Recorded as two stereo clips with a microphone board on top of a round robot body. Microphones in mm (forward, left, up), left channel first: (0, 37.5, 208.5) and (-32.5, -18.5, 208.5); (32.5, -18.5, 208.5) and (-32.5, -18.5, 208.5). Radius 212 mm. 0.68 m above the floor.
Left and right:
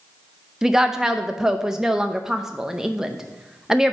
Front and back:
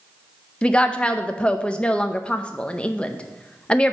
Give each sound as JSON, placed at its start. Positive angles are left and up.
{"t": 0.6, "sound": "a woman speaking", "azimuth_deg": -50, "distance_m": 0.7}